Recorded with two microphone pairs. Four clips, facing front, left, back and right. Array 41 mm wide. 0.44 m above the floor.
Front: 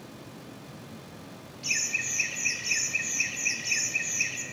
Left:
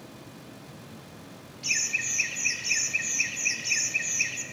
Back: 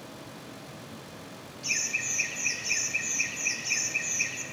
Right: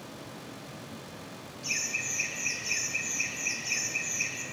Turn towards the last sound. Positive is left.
turn(degrees=65)